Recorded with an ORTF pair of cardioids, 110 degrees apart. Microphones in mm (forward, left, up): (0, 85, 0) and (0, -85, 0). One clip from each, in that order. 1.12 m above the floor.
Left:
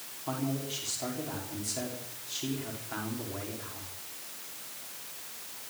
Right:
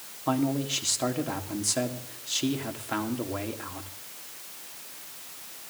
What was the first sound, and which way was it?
A man speaking, 50° right.